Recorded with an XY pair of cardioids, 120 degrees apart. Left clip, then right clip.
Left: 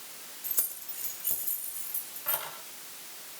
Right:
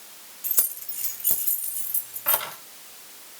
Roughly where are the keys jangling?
Ahead right.